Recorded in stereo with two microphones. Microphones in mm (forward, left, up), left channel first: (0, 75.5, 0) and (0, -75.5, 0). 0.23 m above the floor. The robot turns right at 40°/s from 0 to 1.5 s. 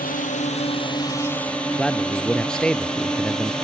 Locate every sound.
0.0 s a drone: 65° left (ahead or behind); by 3.6 s 5° left (ahead or behind)
1.8 s a man speaking: 5° left (ahead or behind)